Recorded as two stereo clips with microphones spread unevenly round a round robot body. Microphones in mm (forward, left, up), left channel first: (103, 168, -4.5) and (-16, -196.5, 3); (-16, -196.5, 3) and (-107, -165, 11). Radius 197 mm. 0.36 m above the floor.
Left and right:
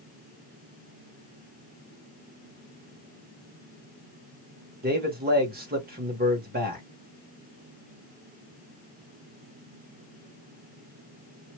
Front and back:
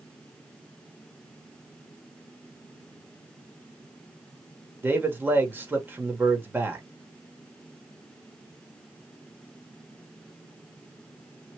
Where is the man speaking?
145° right, 1.4 m.